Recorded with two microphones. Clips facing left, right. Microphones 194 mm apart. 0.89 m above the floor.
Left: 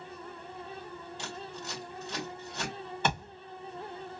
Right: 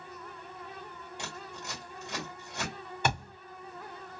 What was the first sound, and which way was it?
Scissors, 15° right (ahead or behind).